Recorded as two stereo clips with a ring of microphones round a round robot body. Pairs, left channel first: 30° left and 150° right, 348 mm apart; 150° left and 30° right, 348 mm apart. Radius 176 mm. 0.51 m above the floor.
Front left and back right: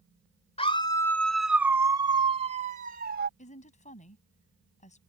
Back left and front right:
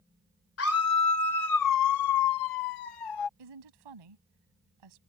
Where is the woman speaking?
40° right.